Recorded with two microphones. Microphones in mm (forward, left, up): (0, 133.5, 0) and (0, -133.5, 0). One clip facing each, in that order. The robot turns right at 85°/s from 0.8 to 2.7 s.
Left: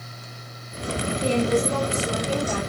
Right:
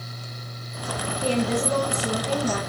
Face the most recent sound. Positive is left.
turn(degrees=-50)